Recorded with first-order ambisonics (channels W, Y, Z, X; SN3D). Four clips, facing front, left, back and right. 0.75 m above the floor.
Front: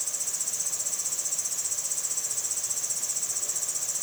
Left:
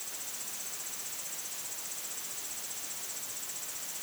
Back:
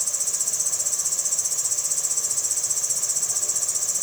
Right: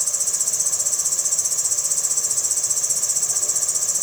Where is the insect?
110° right.